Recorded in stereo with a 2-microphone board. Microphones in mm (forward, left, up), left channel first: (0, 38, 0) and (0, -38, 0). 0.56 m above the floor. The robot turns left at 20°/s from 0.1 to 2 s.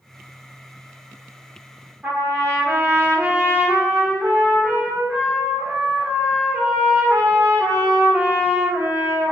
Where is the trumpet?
30° right (ahead or behind), 0.8 m.